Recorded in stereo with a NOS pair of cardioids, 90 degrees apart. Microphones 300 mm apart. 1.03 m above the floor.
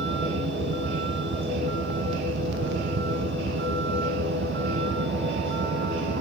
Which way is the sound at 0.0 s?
40° right.